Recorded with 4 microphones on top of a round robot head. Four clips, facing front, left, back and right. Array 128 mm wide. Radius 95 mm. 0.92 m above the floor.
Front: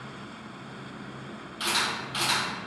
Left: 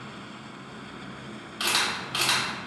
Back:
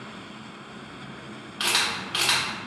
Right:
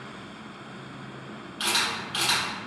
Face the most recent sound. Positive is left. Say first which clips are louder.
# even, back 1 dB
turn(degrees=165)